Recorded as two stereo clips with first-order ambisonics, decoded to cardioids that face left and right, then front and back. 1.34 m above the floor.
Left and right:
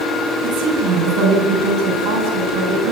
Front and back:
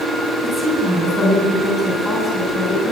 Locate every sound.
0.4 s a woman speaking: 85° right, 10 m